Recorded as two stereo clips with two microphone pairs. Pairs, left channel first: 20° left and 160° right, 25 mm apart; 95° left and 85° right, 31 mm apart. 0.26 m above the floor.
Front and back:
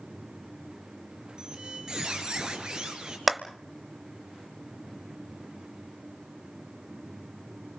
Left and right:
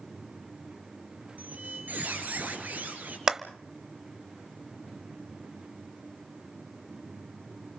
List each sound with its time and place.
1.4 s a squeak: 100° right, 3.5 m
3.3 s a clap: 90° right, 0.7 m